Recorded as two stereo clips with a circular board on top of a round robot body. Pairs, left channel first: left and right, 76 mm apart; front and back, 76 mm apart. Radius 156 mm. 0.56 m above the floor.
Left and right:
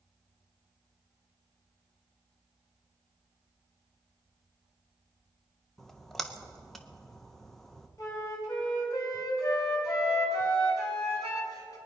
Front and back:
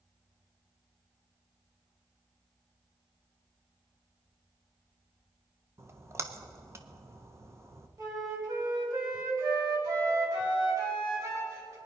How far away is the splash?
About 1.4 m.